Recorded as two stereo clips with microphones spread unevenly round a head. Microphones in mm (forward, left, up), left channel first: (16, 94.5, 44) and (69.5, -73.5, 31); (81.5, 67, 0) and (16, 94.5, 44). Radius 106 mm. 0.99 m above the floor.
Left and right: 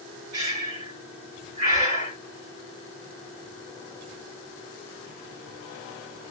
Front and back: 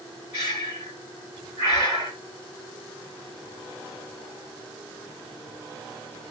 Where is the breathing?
130° right, 1.8 m.